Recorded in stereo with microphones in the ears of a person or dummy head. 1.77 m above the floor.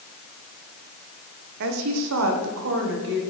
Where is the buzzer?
I don't hear a buzzer.